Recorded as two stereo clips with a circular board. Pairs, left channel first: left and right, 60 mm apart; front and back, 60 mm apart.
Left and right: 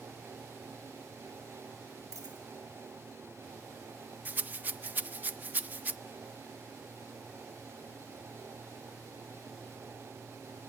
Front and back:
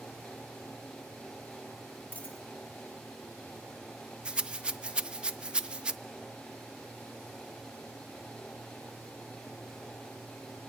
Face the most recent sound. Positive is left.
turn(degrees=-120)